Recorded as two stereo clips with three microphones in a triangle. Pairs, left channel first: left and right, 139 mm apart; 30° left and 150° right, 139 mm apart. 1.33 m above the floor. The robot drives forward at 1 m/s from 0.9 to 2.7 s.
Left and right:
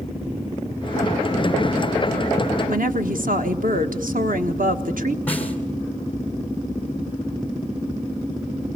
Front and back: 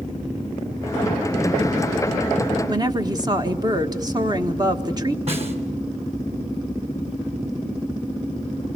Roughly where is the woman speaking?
Right.